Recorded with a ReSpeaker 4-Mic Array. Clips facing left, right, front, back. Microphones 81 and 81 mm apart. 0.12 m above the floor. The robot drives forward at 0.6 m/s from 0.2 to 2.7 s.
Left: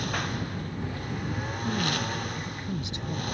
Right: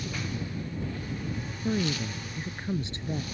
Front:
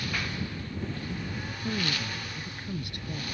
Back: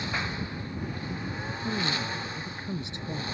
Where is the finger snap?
I don't hear a finger snap.